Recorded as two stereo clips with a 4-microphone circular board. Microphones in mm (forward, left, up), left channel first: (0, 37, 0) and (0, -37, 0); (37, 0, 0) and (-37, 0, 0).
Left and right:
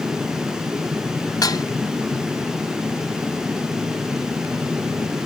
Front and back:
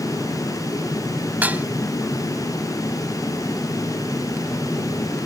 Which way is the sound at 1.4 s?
115° left.